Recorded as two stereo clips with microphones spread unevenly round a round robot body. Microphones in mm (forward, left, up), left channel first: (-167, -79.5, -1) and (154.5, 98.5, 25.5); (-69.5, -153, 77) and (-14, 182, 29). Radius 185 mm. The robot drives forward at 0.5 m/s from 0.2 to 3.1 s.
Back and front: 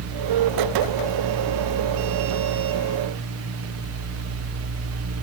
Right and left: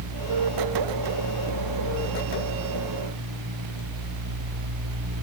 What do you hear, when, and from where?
Only background noise.